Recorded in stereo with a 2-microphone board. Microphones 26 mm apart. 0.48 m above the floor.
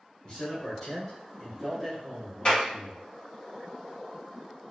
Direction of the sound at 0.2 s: 35° left (ahead or behind).